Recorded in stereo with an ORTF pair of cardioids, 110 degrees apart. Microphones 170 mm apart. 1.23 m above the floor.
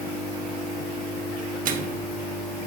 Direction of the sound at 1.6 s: 55° right.